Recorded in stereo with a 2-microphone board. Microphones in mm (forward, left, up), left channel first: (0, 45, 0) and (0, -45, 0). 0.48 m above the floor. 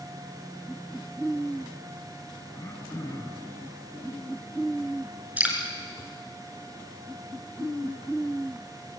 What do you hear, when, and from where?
2.5 s throat clearing: 35° left (ahead or behind), 4 m
5.4 s dripping: 15° right (ahead or behind), 4.5 m